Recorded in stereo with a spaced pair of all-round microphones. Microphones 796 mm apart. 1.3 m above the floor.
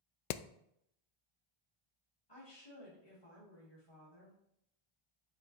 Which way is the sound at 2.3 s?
30° left (ahead or behind).